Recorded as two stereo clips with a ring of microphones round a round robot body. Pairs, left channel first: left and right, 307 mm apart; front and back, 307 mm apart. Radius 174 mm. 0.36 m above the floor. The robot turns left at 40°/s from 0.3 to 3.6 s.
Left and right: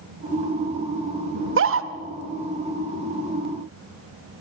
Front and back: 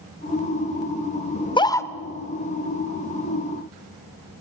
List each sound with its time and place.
1.4 s a scream: 60° right, 1.1 m; by 1.9 s 80° right, 1.1 m